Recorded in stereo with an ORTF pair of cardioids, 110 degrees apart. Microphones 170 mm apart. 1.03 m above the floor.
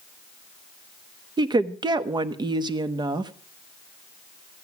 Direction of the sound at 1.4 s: 25° right.